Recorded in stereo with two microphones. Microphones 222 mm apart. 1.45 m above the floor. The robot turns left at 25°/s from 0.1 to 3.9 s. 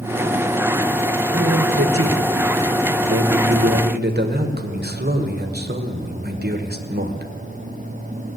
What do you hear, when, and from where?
1.3 s a man speaking: 70° right, 1.2 m; by 7.3 s 135° right, 1.2 m